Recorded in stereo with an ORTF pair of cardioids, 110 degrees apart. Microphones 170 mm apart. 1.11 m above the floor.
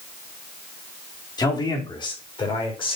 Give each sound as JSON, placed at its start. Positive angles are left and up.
{"t": 1.4, "sound": "a man speaking", "azimuth_deg": 25, "distance_m": 2.5}